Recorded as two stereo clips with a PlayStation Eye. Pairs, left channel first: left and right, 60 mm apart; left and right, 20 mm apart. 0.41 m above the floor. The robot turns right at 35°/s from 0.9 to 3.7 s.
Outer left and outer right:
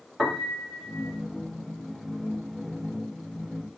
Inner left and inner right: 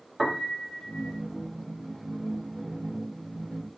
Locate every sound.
0.2 s a piano: 5° left (ahead or behind), 2 m; by 1.2 s 15° left (ahead or behind), 2 m